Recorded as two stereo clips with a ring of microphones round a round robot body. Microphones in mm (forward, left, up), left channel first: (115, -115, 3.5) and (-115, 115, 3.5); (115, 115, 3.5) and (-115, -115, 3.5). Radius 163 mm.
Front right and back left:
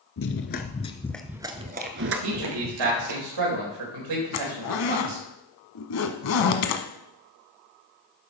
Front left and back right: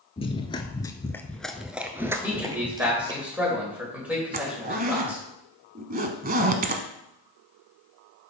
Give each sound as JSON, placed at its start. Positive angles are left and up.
{"t": 0.2, "sound": "running footsteps", "azimuth_deg": -20, "distance_m": 1.0}
{"t": 2.2, "sound": "a man speaking", "azimuth_deg": 140, "distance_m": 4.0}
{"t": 4.3, "sound": "a zipper", "azimuth_deg": -75, "distance_m": 1.0}